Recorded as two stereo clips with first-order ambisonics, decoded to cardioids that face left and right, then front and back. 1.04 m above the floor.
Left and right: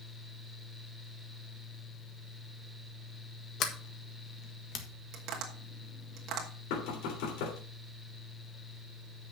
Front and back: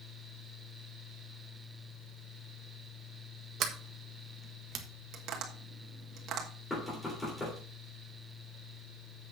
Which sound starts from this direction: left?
Knocking, at 6.7 s.